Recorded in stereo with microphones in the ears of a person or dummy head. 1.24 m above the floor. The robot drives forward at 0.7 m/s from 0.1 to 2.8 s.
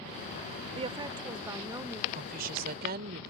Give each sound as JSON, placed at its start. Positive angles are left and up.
{"t": 0.8, "sound": "a woman speaking", "side_deg": -30}
{"t": 2.1, "sound": "a woman speaking", "side_deg": -50}